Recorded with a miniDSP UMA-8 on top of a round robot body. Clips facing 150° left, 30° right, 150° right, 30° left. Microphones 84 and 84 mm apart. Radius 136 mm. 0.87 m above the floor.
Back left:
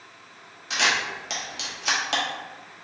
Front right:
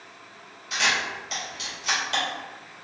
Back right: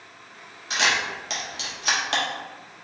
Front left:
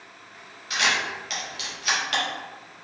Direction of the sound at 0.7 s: 150° left.